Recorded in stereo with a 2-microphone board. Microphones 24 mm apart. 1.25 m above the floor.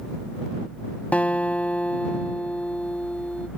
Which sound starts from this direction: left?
A guitar, at 1.1 s.